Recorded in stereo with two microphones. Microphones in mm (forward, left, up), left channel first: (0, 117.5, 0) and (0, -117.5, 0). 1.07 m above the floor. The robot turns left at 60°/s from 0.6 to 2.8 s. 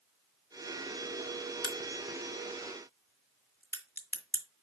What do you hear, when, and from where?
1.6 s a crack: 65° left (ahead or behind), 1.8 m; by 4.4 s 10° left (ahead or behind), 1.8 m